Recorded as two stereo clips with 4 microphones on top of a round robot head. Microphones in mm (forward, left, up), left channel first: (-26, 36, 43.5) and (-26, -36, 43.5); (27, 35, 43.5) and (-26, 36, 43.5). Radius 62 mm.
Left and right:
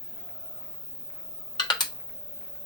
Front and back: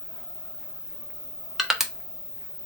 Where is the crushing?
95° left, 1.2 m.